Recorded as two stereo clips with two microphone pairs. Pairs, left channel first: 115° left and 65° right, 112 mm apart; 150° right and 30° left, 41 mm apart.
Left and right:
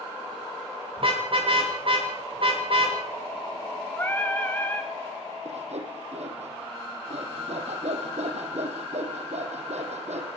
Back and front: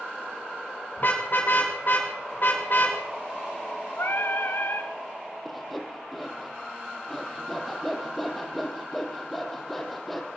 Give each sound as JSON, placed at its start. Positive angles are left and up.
{"t": 1.0, "sound": "a car horn", "azimuth_deg": -105, "distance_m": 8.5}
{"t": 4.0, "sound": "singing", "azimuth_deg": -175, "distance_m": 3.5}
{"t": 5.5, "sound": "sawing", "azimuth_deg": -60, "distance_m": 5.0}